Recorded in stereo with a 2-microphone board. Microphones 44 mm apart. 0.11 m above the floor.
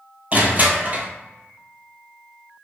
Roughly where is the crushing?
Right.